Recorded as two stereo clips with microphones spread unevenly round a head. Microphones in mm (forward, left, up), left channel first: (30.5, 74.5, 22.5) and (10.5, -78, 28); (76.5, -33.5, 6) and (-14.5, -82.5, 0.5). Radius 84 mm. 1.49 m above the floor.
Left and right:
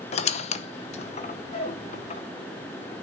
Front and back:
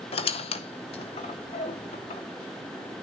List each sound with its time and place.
0.1 s a squeak: 40° left, 0.7 m